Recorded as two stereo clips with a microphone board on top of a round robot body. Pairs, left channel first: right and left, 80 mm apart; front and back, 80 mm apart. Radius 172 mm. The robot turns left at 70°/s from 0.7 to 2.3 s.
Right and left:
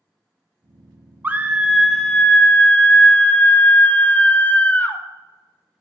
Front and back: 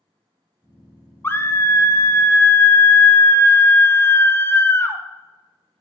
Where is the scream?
40° left, 0.8 m; by 5.0 s 35° right, 0.8 m.